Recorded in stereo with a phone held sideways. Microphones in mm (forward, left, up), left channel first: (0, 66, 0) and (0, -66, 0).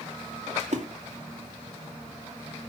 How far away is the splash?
About 2.5 m.